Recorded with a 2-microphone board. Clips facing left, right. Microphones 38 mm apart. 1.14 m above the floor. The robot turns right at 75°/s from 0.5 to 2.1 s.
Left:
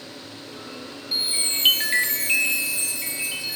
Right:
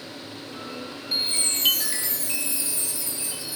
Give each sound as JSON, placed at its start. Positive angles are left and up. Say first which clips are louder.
{"t": 1.1, "sound": "a chime", "louder": "left 1 dB", "azimuth_deg": -5, "distance_m": 0.6}